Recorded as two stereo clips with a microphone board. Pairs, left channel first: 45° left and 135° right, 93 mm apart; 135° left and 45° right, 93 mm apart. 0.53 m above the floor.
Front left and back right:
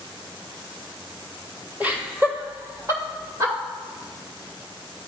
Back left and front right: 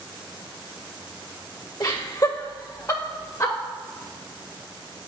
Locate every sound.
1.8 s laughter: 160° left, 2 m; by 3.5 s 175° right, 2.5 m